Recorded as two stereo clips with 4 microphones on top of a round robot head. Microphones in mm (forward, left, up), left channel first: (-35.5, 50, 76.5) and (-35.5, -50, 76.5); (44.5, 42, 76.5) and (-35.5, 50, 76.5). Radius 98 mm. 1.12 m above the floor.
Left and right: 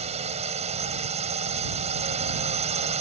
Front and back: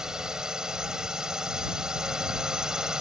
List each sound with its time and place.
0.0 s a drone: 105° right